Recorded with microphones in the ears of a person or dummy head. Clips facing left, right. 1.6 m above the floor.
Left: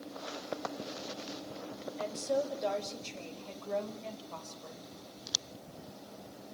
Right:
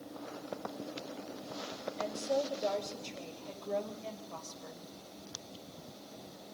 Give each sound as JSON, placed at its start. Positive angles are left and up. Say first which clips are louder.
{"t": 2.0, "sound": "a woman speaking", "louder": "left 1 dB", "side_deg": 0, "distance_m": 7.5}